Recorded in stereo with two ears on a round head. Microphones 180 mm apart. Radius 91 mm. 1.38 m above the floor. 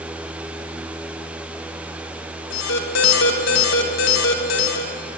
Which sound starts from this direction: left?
An alarm, at 2.5 s.